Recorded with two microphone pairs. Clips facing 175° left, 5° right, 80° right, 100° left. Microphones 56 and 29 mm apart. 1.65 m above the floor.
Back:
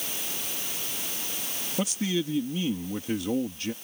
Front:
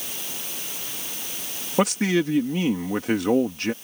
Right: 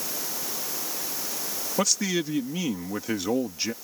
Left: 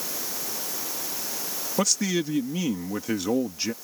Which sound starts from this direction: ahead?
A man speaking, at 1.8 s.